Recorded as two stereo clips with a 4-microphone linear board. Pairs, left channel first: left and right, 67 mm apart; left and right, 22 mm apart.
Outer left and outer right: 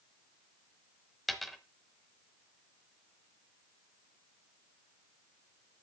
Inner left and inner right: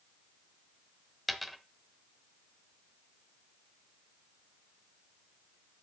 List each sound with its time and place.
1.3 s a dropped coin: centre (ahead or behind), 1.0 m